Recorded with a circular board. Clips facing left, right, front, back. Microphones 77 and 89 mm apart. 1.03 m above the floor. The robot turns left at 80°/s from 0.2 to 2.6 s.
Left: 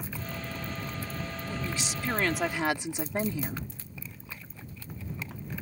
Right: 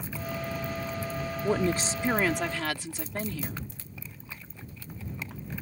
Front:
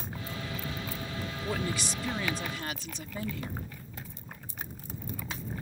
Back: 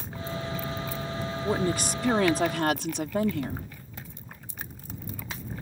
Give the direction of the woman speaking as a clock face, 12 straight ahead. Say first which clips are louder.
Right 11 dB, back 7 dB; 4 o'clock.